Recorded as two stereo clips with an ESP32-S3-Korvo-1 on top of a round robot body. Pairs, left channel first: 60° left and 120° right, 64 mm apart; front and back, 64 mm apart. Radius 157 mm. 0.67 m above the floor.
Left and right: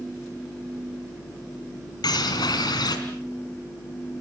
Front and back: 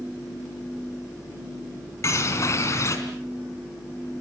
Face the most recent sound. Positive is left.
turn(degrees=45)